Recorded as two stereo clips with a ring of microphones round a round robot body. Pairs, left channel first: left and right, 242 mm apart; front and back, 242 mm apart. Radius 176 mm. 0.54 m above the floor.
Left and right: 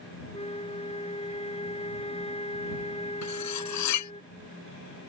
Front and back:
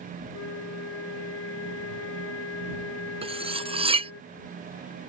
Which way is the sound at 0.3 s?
25° left.